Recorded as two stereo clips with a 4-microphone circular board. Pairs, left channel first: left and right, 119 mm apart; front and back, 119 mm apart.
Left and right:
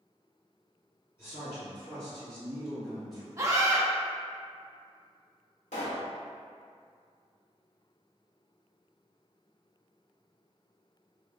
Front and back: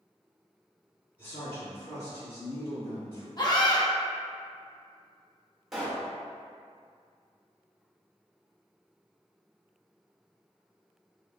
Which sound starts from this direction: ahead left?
A man speaking, at 1.2 s.